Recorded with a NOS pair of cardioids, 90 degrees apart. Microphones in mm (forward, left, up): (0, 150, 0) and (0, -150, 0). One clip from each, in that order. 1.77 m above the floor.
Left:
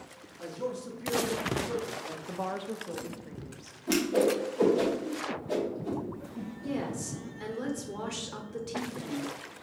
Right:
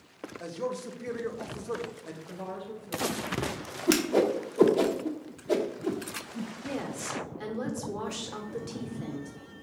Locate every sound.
0.4 s a man speaking: 20° right, 0.8 m
2.3 s a woman speaking: 40° left, 0.6 m
3.9 s a whoosh: 30° right, 0.7 m
6.6 s a woman speaking: 10° right, 1.0 m